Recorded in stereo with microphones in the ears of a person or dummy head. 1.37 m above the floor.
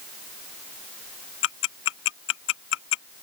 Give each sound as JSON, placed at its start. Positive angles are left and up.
{"t": 1.4, "sound": "ticking", "side_deg": 70}